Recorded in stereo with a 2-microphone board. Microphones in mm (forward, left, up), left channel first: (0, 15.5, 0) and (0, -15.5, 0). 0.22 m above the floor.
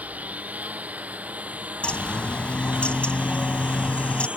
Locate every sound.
0.0 s a lawn mower: 50° right (ahead or behind); by 4.4 s 40° right (ahead or behind)
1.8 s a bird: 40° left (ahead or behind)